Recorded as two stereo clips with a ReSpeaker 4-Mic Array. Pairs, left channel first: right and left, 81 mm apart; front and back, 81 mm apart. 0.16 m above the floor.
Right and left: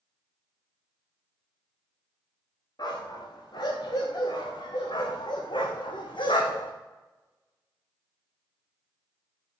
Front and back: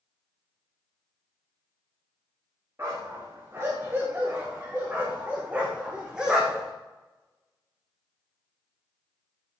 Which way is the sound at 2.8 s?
120° right.